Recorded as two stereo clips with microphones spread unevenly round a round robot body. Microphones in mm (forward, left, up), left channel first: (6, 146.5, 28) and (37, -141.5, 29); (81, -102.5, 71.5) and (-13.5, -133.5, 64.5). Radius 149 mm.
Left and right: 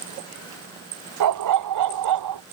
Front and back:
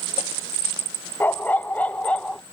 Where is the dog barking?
55° right; by 2.4 s 60° right.